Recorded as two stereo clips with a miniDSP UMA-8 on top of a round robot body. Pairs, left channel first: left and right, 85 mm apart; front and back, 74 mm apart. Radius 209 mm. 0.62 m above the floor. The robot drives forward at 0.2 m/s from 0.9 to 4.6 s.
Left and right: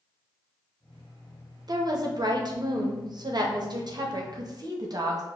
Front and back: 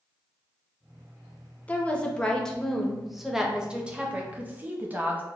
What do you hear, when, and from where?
1.7 s a woman speaking: 65° right, 0.9 m; by 5.2 s 115° right, 0.9 m